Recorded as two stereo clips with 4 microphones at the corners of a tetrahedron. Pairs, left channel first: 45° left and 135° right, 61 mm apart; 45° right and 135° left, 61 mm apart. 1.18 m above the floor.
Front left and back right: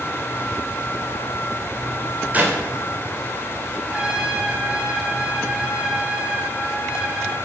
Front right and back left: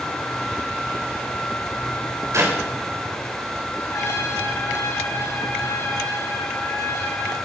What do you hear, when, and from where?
2.3 s a clap: 165° left, 3 m
3.9 s a trumpet: 65° right, 6 m